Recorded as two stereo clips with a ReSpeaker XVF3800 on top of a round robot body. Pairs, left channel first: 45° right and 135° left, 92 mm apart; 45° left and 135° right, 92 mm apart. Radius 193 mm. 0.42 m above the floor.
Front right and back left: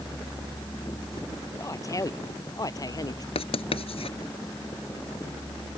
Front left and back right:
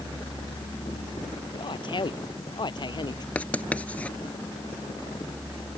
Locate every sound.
1.5 s a man speaking: 10° left; by 3.2 s 5° left
3.4 s writing: 30° right